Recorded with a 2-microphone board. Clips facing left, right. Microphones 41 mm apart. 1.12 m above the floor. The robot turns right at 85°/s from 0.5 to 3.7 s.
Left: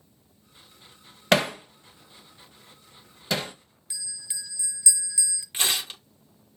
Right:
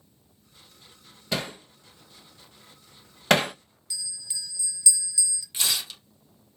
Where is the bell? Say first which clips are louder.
Right 2 dB; 20° left (ahead or behind), 1.9 m.